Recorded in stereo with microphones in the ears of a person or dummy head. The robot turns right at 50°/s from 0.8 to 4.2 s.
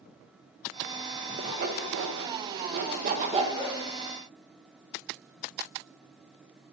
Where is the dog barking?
65° right (ahead or behind), 3.5 m; by 3.8 s 60° right (ahead or behind), 3.5 m.